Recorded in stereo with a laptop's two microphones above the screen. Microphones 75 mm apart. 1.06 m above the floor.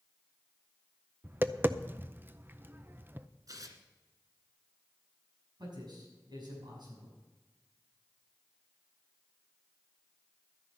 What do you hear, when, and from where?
1.2 s tapping: 30° right (ahead or behind), 0.5 m
3.5 s tearing paper: 50° right (ahead or behind), 1.8 m
5.6 s a man speaking: 70° right (ahead or behind), 6.5 m